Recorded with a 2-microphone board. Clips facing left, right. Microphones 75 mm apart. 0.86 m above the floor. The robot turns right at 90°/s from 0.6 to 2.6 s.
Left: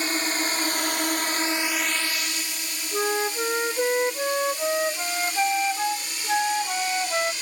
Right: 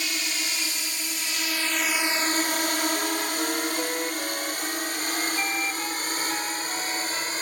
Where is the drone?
40° left (ahead or behind); by 7.4 s 45° right (ahead or behind).